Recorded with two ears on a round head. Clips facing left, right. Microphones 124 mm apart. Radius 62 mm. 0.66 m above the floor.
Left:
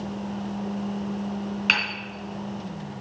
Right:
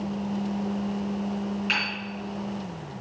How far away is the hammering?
About 3.5 m.